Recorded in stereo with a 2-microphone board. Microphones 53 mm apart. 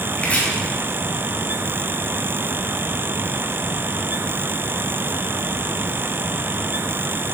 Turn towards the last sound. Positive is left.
turn(degrees=25)  # may be behind; listen again after turning